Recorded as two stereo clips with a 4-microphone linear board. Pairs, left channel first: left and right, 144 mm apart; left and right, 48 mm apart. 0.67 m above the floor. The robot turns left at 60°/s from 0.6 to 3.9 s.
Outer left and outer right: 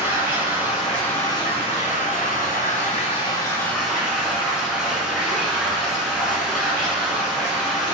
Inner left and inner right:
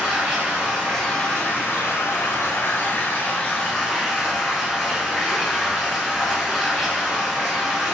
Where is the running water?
165° right, 1.6 m; by 7.9 s 5° right, 1.6 m.